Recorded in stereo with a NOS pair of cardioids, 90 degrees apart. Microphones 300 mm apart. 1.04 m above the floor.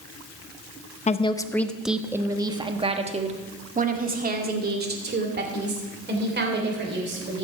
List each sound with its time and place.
1.1 s a woman speaking: 25° left, 0.8 m; by 7.5 s 35° right, 4 m